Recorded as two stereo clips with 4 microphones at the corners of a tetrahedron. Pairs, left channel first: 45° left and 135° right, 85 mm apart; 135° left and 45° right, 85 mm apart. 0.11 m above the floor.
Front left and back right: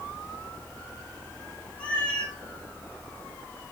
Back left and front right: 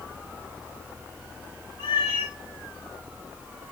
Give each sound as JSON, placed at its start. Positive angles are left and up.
{"t": 1.8, "sound": "a cat meowing", "azimuth_deg": 125, "distance_m": 4.5}